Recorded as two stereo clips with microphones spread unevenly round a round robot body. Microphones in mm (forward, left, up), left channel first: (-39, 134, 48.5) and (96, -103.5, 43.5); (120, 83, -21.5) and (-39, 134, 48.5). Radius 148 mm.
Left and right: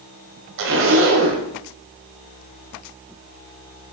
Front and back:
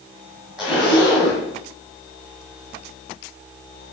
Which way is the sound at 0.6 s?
105° right.